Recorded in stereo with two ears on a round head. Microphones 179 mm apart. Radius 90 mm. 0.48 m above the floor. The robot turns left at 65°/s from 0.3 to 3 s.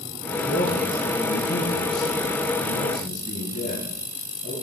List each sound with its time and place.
0.4 s a man speaking: 160° right, 7 m; by 4.5 s 30° left, 7 m